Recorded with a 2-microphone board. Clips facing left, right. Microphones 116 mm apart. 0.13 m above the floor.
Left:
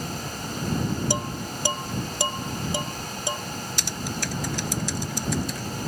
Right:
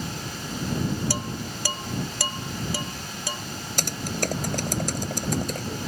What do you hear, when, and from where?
1.1 s dishes clattering: 20° left (ahead or behind)
3.8 s typing on a keyboard: 50° right (ahead or behind)